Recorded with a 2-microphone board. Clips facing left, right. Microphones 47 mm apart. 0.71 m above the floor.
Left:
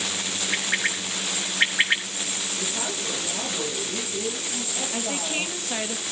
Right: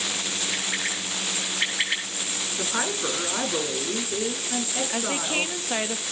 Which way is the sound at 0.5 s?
30° left (ahead or behind).